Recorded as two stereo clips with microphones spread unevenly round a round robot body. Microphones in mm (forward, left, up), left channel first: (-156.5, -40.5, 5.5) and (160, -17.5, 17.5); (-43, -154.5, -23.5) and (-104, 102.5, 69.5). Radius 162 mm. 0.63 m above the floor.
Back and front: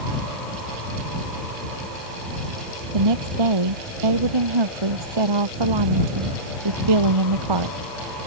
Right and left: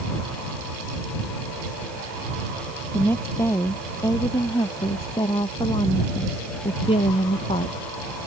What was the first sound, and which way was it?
A woman speaking, 10° left.